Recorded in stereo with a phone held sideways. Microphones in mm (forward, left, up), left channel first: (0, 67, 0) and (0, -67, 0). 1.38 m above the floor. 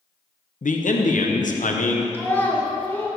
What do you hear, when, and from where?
0.6 s a man speaking: 80° left, 0.8 m
2.1 s a child speaking: 15° left (ahead or behind), 1.3 m